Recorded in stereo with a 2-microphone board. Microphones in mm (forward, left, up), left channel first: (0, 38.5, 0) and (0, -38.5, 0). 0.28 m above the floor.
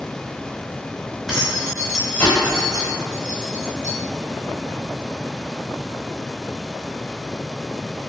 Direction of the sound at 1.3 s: 5° right (ahead or behind).